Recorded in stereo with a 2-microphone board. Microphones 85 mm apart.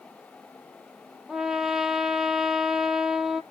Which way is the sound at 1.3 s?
5° right (ahead or behind).